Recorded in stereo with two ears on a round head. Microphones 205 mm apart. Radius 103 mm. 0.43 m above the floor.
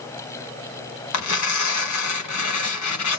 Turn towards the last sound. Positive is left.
turn(degrees=75)  # may be behind; listen again after turning